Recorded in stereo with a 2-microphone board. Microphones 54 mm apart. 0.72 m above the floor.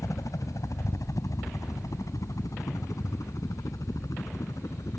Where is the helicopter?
70° left (ahead or behind).